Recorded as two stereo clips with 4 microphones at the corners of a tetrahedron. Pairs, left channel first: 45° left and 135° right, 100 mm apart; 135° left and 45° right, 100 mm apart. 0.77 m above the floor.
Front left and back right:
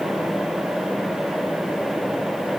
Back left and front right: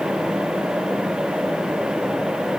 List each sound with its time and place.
Only background noise.